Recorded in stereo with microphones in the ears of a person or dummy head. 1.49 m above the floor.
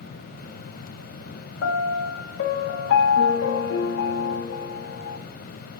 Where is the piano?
85° left, 0.5 m.